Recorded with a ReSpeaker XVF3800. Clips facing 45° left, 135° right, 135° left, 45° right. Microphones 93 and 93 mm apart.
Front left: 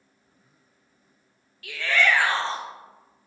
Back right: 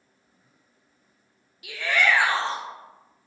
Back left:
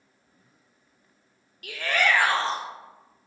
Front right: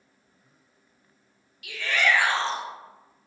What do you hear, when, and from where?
1.6 s a shout: 155° left, 0.6 m